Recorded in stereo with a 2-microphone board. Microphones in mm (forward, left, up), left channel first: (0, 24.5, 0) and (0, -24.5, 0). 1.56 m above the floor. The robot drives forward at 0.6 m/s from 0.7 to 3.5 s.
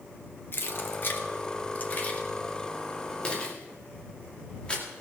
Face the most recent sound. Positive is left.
turn(degrees=25)  # may be behind; listen again after turning